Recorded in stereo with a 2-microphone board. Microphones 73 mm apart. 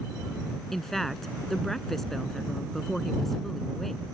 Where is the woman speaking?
5° left (ahead or behind).